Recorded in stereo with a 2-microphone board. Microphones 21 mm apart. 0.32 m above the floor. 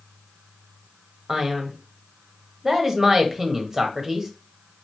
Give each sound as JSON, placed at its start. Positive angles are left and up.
{"t": 1.3, "sound": "a man speaking", "side_deg": -30, "distance_m": 1.2}